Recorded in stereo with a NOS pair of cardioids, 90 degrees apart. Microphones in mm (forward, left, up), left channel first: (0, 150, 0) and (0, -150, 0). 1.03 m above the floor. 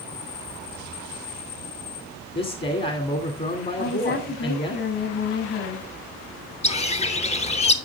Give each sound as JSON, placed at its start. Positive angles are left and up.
{"t": 2.4, "sound": "a man speaking", "azimuth_deg": 35, "distance_m": 2.5}
{"t": 3.8, "sound": "a woman speaking", "azimuth_deg": 50, "distance_m": 7.0}
{"t": 6.6, "sound": "a bird", "azimuth_deg": 20, "distance_m": 1.0}